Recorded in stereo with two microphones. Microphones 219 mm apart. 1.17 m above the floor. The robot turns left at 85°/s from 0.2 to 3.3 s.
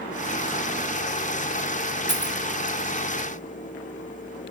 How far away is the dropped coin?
About 1.2 m.